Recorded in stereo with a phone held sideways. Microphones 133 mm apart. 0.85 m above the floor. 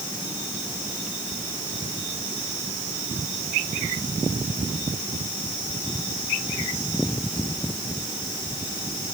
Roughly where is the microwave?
I don't hear a microwave.